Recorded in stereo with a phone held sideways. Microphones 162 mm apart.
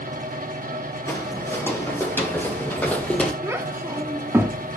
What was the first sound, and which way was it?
A fan, 70° right (ahead or behind).